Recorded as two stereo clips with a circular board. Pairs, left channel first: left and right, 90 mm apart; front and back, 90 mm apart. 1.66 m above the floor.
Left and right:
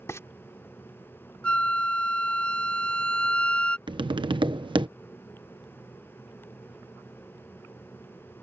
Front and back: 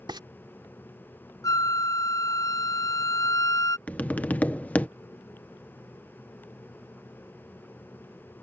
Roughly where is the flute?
Ahead.